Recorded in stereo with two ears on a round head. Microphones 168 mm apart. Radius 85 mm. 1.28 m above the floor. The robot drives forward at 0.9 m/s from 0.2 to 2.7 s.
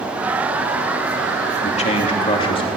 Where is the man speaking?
40° left (ahead or behind), 3 m; by 2.7 s 30° left (ahead or behind), 3.5 m.